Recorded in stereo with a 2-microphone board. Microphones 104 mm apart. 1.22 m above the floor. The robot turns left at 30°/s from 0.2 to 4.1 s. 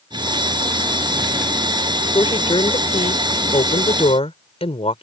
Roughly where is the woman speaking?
Behind left.